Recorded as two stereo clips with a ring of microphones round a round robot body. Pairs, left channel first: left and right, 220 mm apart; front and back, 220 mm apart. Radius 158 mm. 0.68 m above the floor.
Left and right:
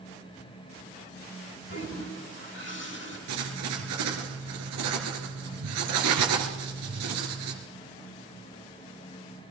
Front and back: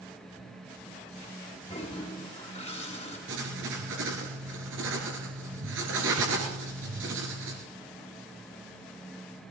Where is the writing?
125° right, 3 m.